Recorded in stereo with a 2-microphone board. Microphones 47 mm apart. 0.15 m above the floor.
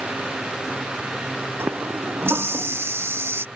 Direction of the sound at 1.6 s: 60° right (ahead or behind).